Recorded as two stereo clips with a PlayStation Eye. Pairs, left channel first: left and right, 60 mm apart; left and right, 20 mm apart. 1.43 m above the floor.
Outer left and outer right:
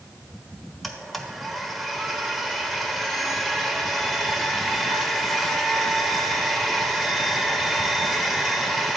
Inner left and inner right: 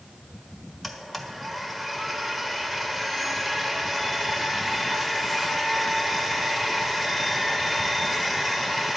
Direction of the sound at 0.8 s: 5° left (ahead or behind).